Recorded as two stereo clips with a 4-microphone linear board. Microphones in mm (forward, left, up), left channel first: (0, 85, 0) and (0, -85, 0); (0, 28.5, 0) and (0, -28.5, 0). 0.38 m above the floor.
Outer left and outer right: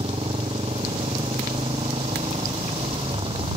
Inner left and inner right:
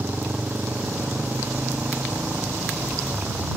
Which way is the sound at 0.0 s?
35° right (ahead or behind).